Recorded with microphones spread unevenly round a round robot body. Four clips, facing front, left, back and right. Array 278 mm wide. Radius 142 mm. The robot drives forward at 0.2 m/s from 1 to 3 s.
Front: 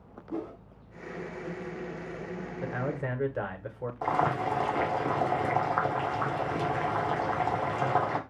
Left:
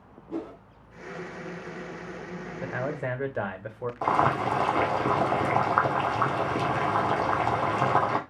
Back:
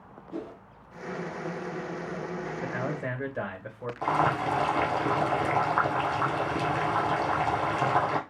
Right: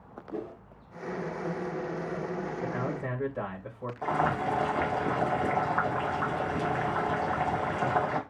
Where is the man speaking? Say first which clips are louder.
Left 1 dB, front 2 dB; 85° left, 1.3 m; by 3.9 s 90° left, 1.3 m.